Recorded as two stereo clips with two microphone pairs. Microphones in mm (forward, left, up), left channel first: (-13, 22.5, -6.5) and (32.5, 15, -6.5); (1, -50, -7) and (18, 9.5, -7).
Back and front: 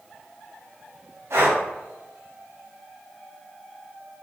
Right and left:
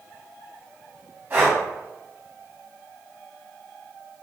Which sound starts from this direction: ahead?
Breathing, at 1.3 s.